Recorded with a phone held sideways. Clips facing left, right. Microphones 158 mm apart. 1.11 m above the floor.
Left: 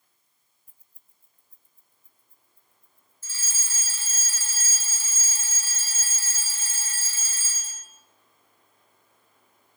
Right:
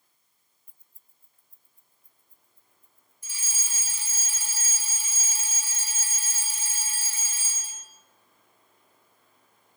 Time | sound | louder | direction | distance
0.7 | keys jangling | even | 5° left (ahead or behind) | 0.5 m
3.2 | a fire alarm | even | 15° right (ahead or behind) | 1.6 m